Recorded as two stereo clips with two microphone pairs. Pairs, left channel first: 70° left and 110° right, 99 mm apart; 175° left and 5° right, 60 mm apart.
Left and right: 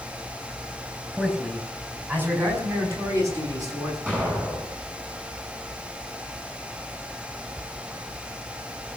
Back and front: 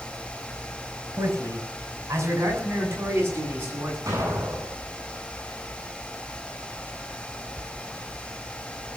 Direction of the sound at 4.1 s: 35° right.